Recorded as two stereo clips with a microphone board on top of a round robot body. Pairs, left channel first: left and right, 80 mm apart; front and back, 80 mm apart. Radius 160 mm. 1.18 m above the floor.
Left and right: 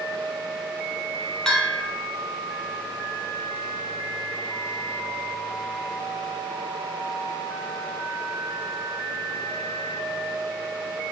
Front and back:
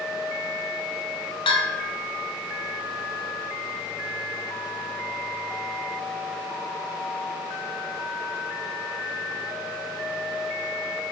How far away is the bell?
About 0.7 m.